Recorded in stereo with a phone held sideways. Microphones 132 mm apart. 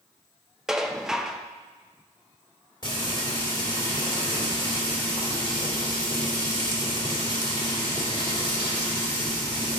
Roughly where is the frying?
Left.